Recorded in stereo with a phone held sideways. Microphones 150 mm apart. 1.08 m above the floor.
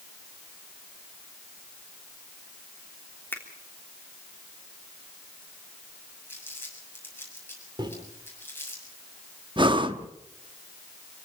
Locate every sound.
3.3 s a finger snap: 15° left (ahead or behind), 3 m
6.3 s crumpling: 15° left (ahead or behind), 7 m
7.8 s a microwave: 30° right (ahead or behind), 3 m
9.6 s breathing: 35° right (ahead or behind), 1.1 m